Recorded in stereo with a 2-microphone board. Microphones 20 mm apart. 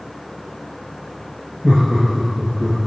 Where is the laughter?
45° right (ahead or behind), 6.5 m; by 2.8 s 60° right (ahead or behind), 6 m.